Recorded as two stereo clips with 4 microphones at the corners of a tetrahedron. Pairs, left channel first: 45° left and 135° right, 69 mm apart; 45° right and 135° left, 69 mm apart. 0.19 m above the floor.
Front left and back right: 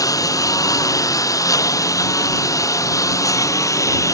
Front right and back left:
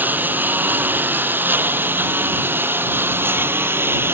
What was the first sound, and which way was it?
A lawn mower, 75° left.